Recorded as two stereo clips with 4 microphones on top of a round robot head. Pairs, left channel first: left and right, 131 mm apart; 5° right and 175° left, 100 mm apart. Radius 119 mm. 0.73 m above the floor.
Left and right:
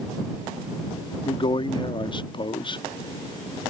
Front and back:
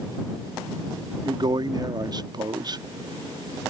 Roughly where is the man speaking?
Behind left.